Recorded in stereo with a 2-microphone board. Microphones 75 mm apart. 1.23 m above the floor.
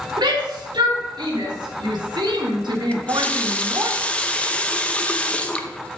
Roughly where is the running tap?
Centre.